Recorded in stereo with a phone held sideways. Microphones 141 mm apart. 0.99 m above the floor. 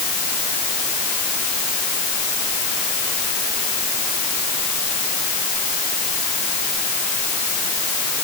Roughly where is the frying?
No frying in this recording.